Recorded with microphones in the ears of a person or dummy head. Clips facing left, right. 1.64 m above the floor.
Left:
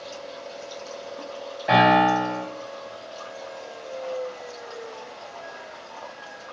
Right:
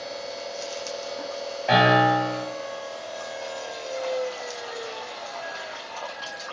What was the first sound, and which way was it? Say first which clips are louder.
A piano: left 1 dB; 10° left (ahead or behind).